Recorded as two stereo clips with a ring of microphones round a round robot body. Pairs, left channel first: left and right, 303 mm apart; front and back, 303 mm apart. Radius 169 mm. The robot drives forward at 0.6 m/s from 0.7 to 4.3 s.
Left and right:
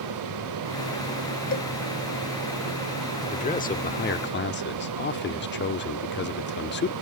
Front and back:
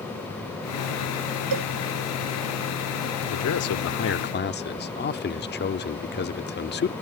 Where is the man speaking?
25° left; by 6.9 s 45° left.